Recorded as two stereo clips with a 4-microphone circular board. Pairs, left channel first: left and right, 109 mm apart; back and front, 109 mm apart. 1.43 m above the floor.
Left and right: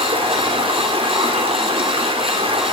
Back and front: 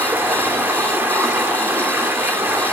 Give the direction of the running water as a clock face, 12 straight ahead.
2 o'clock.